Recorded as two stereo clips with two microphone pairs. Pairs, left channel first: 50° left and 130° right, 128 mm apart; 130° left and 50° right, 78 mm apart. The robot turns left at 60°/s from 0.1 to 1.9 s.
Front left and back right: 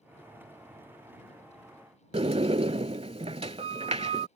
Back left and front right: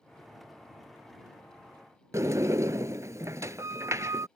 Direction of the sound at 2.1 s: 95° right.